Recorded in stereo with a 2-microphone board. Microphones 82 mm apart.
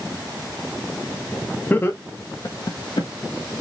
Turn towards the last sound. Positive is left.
turn(degrees=70)  # may be behind; listen again after turning